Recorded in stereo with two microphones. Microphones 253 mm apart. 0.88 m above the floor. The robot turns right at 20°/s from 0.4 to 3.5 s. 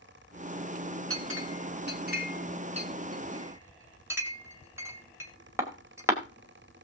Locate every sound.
1.1 s a clink: 60° right (ahead or behind), 2 m; by 6.2 s 10° right (ahead or behind), 2 m